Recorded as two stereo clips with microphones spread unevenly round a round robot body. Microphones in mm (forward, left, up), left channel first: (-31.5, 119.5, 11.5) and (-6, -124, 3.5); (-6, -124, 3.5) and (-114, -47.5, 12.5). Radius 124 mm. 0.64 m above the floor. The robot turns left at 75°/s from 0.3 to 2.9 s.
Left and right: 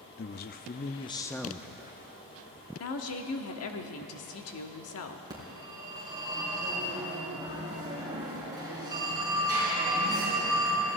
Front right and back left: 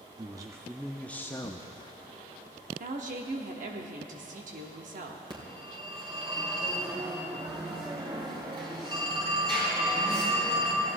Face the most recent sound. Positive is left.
turn(degrees=-160)